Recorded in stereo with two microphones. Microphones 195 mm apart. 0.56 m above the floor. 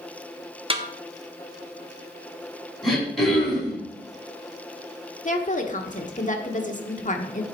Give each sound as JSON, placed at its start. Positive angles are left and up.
{"t": 0.7, "sound": "a snare drum", "side_deg": -30, "distance_m": 0.9}
{"t": 2.8, "sound": "throat clearing", "side_deg": 0, "distance_m": 5.5}
{"t": 5.2, "sound": "a woman speaking", "side_deg": 40, "distance_m": 1.3}